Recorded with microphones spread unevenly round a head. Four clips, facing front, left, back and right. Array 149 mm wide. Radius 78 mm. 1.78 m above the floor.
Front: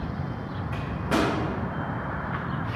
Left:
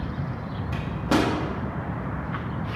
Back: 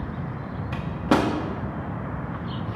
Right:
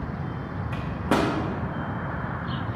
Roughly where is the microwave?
Behind.